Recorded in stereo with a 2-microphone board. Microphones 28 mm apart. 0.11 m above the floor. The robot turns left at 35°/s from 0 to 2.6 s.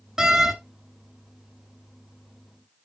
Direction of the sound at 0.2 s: 20° right (ahead or behind).